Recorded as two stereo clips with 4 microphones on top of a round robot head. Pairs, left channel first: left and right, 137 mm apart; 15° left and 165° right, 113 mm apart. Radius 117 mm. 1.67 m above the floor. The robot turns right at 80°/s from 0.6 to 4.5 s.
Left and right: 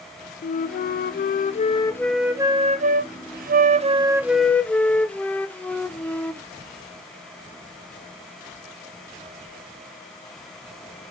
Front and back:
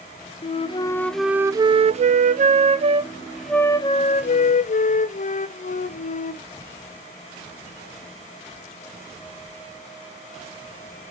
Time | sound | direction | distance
0.4 | a flute | 55° left | 0.6 m